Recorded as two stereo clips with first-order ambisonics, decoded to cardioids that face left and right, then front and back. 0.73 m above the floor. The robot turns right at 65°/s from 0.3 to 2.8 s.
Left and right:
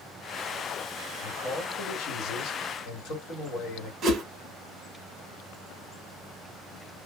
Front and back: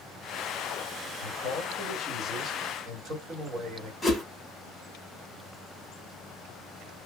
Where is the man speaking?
15° left, 1.7 m; by 3.9 s 120° left, 1.7 m.